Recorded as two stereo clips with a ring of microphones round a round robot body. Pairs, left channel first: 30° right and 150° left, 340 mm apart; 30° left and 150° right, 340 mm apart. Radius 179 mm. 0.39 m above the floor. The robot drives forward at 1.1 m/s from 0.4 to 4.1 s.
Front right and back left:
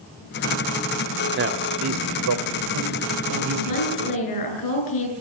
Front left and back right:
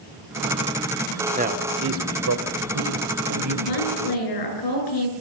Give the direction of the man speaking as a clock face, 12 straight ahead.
7 o'clock.